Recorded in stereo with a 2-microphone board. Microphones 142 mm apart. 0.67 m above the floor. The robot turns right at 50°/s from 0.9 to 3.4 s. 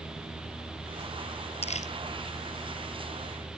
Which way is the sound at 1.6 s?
50° left (ahead or behind).